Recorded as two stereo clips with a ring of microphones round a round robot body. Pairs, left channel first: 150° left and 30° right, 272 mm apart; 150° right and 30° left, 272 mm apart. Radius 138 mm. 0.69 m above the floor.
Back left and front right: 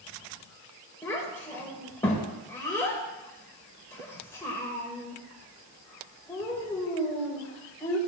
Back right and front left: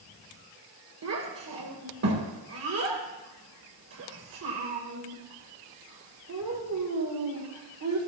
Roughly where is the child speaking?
Left.